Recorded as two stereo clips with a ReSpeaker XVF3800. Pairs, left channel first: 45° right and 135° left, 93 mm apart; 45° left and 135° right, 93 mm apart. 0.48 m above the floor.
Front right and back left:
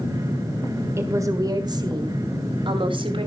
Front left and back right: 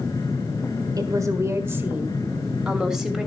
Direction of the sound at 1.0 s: 170° right.